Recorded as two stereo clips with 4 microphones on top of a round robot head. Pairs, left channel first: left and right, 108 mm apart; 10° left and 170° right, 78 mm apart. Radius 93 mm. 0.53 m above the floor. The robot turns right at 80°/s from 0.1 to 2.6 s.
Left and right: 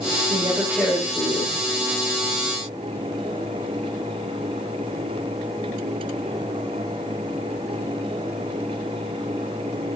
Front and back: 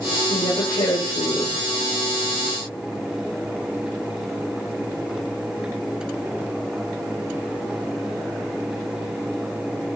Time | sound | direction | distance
0.3 | a woman speaking | 50° right | 3 m